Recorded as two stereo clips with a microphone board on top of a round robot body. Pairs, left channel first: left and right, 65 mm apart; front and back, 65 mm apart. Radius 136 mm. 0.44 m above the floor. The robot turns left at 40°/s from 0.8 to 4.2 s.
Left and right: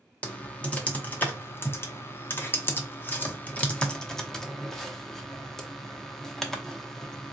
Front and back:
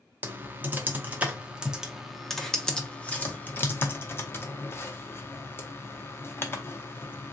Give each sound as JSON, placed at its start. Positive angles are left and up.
{"t": 0.2, "sound": "typing on a keyboard", "azimuth_deg": 145, "distance_m": 1.0}